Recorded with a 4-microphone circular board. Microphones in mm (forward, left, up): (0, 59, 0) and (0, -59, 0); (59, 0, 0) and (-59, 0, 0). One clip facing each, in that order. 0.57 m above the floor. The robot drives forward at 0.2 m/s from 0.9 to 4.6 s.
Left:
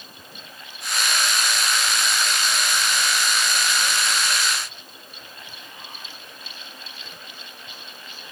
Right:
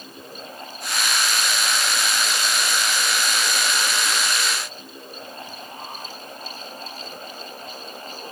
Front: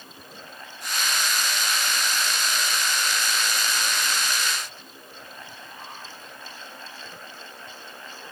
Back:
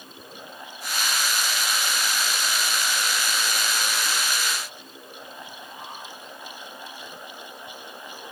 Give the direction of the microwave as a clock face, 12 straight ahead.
No microwave in this recording.